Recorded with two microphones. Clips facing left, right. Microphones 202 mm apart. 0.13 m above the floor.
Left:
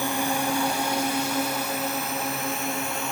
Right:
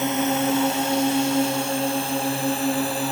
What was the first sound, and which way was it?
A drone, 20° right (ahead or behind).